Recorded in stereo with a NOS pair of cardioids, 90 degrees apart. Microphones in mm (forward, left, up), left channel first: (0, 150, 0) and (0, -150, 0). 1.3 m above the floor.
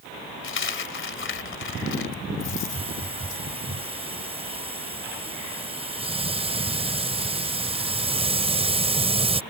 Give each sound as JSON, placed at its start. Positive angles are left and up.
{"t": 0.4, "sound": "a dropped coin", "azimuth_deg": 40}
{"t": 2.5, "sound": "a hiss", "azimuth_deg": -20}